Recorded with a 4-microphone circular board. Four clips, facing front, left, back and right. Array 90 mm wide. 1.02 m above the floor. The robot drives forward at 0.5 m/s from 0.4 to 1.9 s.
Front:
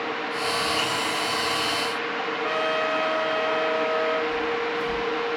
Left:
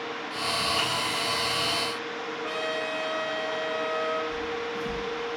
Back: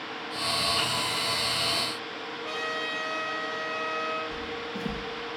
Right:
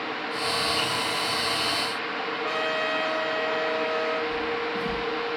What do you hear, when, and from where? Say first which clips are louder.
2.4 s a trumpet: right 3 dB, front 8 dB; 15° right, 2 m
4.3 s footsteps: right 3 dB, front 9 dB; 145° right, 3.5 m